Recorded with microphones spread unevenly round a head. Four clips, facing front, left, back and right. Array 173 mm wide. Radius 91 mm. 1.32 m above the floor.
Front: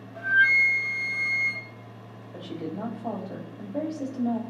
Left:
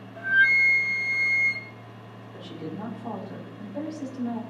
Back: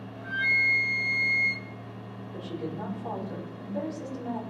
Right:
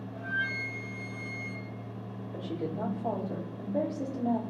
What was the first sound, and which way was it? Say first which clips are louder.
A flute: left 12 dB, front 8 dB; 25° left.